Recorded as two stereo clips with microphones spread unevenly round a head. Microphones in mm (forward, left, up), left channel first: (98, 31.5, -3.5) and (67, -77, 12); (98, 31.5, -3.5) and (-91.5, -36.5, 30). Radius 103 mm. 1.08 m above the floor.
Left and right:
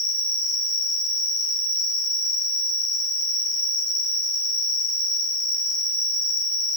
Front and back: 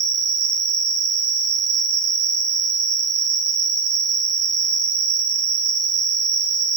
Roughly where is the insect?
Behind.